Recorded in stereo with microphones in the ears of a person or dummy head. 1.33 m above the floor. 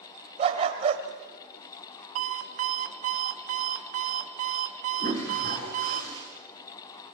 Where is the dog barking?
35° right (ahead or behind), 2.5 m.